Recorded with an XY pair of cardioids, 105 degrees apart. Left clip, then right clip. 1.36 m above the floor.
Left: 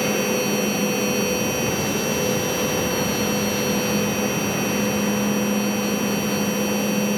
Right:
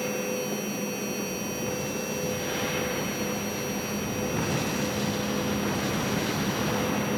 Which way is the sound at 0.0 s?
65° left.